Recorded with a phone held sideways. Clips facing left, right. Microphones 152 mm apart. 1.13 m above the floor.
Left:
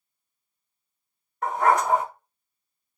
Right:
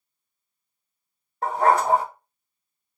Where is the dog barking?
30° right (ahead or behind), 0.8 m.